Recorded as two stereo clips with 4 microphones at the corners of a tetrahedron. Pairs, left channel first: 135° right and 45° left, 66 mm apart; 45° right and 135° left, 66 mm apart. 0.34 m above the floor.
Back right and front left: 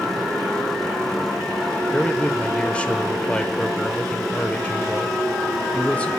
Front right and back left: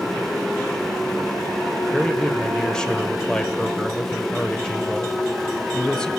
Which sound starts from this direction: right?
A man speaking, at 1.9 s.